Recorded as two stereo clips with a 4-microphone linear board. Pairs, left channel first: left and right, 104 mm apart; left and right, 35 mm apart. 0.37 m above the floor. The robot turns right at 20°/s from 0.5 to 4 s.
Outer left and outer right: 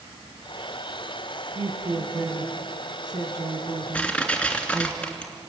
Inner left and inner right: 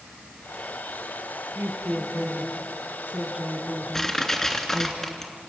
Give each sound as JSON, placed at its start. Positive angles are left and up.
{"t": 1.6, "sound": "a woman speaking", "side_deg": -65, "distance_m": 3.5}
{"t": 3.9, "sound": "crushing", "side_deg": 10, "distance_m": 3.0}